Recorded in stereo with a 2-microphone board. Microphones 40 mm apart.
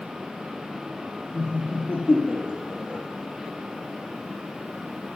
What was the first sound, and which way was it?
Laughter, 55° left (ahead or behind).